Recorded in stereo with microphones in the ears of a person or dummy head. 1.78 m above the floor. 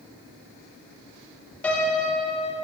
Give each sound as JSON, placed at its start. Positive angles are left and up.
{"t": 1.6, "sound": "a piano", "side_deg": 10, "distance_m": 2.0}